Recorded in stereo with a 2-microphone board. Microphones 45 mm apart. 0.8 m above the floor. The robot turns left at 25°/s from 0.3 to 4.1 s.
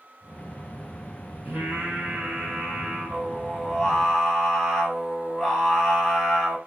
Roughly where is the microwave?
I don't hear a microwave.